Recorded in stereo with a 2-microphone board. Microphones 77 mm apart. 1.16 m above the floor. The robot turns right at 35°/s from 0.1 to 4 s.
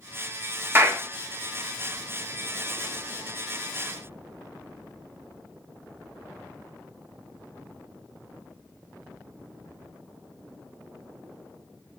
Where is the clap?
30° right (ahead or behind), 1.3 m; by 1.0 s 40° right (ahead or behind), 1.3 m.